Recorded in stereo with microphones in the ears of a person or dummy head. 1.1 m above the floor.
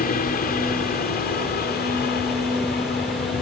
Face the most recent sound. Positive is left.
turn(degrees=45)  # may be behind; listen again after turning